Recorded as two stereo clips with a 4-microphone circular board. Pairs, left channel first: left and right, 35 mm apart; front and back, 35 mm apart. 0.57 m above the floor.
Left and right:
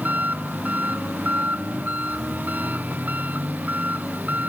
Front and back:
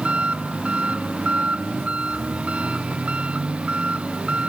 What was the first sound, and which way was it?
An engine running, 125° right.